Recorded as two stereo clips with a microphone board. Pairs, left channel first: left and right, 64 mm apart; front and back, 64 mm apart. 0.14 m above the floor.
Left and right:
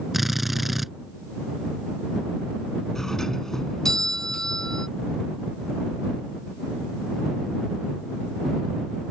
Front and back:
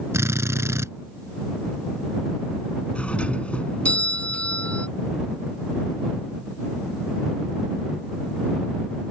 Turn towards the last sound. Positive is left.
turn(degrees=20)